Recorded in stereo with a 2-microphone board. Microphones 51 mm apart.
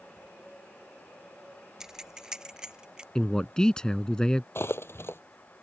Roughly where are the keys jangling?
Centre.